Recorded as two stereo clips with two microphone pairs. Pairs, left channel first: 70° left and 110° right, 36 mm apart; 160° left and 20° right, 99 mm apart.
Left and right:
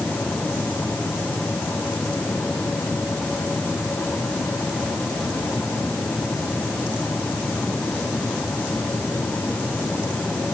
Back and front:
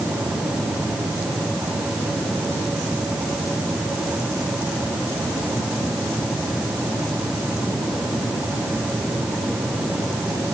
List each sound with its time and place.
Only background noise.